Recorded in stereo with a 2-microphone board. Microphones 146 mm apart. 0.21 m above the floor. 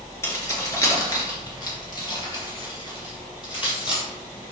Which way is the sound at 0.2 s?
20° left (ahead or behind).